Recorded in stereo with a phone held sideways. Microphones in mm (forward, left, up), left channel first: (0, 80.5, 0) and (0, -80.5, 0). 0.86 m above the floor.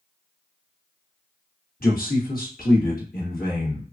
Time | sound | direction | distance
1.8 | a man speaking | 65° left (ahead or behind) | 1.3 m